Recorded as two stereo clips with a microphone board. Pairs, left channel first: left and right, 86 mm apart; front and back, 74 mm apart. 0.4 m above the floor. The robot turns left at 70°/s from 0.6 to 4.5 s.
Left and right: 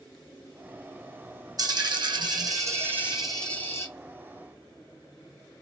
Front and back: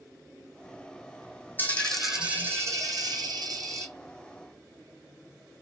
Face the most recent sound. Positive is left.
turn(degrees=95)